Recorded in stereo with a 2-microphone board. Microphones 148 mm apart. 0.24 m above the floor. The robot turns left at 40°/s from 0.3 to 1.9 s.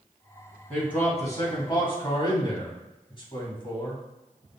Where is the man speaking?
170° left, 2.0 m; by 4.0 s 120° left, 2.0 m.